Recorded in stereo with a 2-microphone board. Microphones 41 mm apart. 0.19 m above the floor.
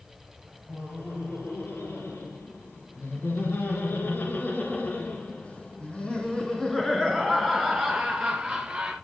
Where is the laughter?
70° left (ahead or behind), 5 m; by 8.9 s 15° right (ahead or behind), 4 m.